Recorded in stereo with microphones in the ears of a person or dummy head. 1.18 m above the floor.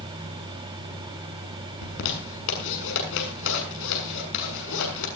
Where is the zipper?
75° left (ahead or behind), 6.5 m.